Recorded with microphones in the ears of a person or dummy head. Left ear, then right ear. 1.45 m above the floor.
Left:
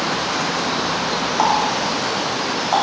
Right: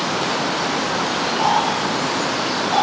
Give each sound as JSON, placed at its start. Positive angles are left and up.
{"t": 1.4, "sound": "a running tap", "side_deg": 60, "distance_m": 2.5}